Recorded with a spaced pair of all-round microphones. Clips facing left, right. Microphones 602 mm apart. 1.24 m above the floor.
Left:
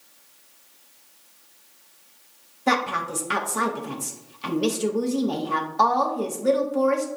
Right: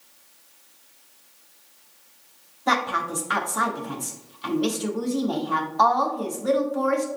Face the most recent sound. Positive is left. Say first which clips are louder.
# left 2 dB
turn(degrees=55)  # may be behind; listen again after turning